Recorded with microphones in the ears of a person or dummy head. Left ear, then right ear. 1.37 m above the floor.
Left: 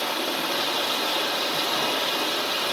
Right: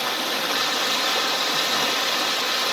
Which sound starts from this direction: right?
Running water, at 0.0 s.